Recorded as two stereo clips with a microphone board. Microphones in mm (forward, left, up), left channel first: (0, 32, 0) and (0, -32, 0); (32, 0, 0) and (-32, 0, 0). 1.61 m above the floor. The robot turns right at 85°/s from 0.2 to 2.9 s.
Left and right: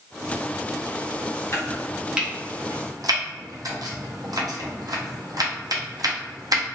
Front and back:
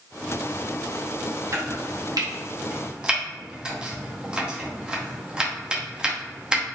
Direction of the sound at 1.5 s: 140° left.